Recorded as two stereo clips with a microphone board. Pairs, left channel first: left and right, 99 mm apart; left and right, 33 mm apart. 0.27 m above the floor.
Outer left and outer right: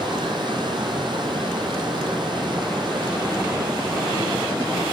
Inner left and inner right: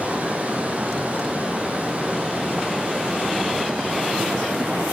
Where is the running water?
50° right (ahead or behind), 3 m.